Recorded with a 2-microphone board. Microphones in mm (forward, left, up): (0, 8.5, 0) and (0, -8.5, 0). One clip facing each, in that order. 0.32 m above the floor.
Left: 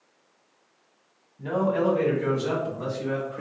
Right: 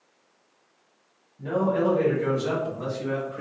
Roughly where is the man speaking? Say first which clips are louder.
Even; centre.